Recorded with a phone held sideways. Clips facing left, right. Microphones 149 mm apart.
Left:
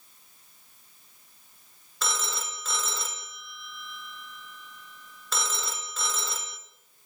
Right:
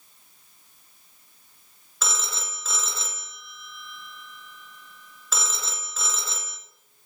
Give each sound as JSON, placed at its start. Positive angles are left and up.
{"t": 2.0, "sound": "a phone ringing", "side_deg": 0, "distance_m": 1.4}